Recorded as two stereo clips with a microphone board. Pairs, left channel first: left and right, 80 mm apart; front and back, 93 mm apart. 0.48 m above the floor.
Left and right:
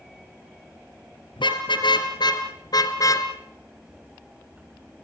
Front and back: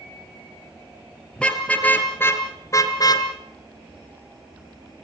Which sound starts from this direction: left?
A car horn, at 1.4 s.